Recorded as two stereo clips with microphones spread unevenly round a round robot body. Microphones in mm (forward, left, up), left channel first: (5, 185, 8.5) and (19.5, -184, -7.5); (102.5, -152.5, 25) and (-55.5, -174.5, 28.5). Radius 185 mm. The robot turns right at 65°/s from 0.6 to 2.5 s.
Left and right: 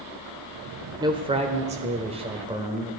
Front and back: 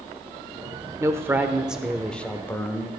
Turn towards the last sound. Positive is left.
turn(degrees=-40)